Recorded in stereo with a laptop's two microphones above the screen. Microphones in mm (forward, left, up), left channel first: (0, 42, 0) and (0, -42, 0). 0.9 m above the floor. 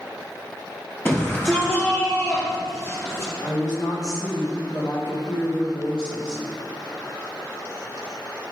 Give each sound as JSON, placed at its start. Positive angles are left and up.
{"t": 1.1, "sound": "a shout", "side_deg": 25, "distance_m": 2.5}
{"t": 3.4, "sound": "a woman speaking", "side_deg": 55, "distance_m": 1.8}